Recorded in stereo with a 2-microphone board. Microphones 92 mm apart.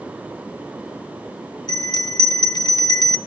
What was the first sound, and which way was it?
A bell, 50° left (ahead or behind).